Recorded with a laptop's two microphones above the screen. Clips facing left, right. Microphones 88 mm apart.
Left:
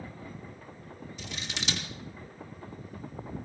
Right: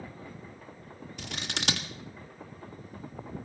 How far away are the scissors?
About 1.5 m.